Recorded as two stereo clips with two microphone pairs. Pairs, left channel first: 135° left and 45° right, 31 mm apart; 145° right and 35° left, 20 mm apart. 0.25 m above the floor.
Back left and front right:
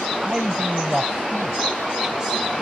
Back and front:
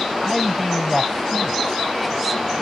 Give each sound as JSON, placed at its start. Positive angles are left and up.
{"t": 0.2, "sound": "a man speaking", "azimuth_deg": -60}